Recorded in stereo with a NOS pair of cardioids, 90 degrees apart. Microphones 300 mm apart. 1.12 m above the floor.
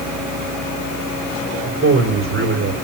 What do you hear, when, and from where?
1.6 s a man speaking: 40° right, 5 m